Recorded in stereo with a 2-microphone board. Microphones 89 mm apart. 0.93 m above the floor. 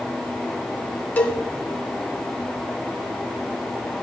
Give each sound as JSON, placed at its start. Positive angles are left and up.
{"t": 1.2, "sound": "a cowbell", "side_deg": 20, "distance_m": 1.3}